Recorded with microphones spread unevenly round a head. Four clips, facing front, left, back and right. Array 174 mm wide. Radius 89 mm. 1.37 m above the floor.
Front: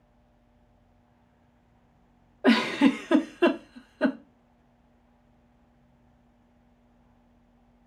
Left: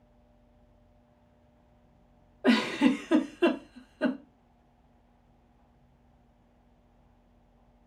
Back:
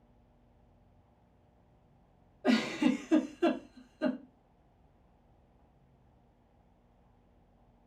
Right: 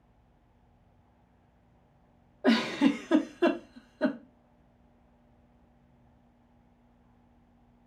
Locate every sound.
2.4 s a giggle: 10° right, 0.9 m